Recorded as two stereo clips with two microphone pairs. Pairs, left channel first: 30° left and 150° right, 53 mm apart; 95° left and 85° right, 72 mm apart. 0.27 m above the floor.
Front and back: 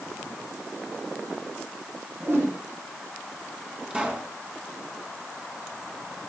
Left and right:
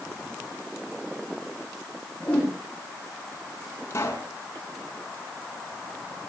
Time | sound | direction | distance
2.2 | a whoosh | 170° left | 5.5 m
3.9 | a pop | 140° left | 3 m